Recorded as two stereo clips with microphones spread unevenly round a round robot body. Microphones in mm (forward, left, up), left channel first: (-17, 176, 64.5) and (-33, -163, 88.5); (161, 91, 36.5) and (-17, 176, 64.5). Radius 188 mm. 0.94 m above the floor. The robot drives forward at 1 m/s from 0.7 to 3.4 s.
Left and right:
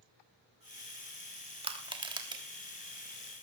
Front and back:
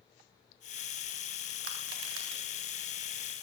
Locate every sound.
1.6 s crushing: 170° right, 2.5 m